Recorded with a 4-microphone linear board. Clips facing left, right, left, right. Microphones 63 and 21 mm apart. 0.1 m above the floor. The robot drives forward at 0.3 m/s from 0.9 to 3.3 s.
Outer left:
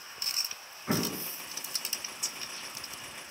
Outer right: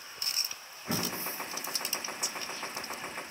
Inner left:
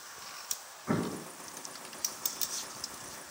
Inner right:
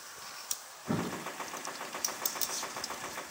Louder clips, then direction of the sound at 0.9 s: Outer left 3 dB, inner left 2 dB; 20° left (ahead or behind).